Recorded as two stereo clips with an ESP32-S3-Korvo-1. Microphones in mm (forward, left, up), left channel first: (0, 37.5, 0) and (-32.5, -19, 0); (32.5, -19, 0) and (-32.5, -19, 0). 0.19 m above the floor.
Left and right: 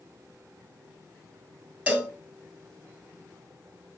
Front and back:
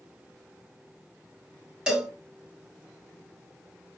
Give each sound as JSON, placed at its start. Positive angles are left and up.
{"t": 1.9, "sound": "a cowbell", "azimuth_deg": -130, "distance_m": 0.8}